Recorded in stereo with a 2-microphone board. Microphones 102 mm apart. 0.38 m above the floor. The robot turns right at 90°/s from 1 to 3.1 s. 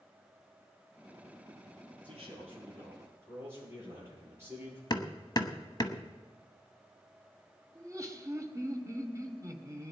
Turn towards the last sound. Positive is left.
turn(degrees=-30)  # may be behind; listen again after turning